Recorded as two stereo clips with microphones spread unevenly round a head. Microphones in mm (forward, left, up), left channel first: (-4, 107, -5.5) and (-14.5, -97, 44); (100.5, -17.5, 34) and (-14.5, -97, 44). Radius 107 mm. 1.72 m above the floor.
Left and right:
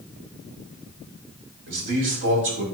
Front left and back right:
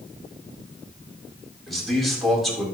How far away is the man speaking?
About 7 m.